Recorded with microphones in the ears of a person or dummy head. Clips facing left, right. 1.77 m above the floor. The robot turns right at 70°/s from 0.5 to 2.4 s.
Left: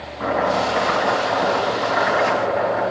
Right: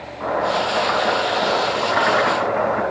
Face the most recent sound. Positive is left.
turn(degrees=-85)